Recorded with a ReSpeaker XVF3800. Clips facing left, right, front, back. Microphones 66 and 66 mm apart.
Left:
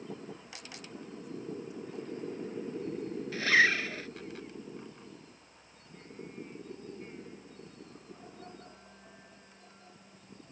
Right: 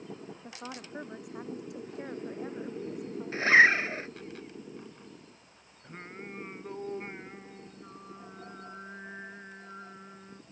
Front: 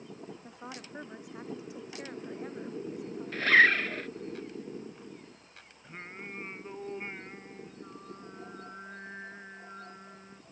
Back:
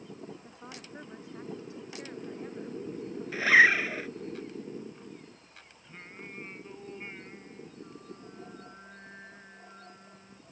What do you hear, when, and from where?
0.4 s a woman speaking: 75° right
3.3 s a zipper: 105° right
5.8 s singing: 65° right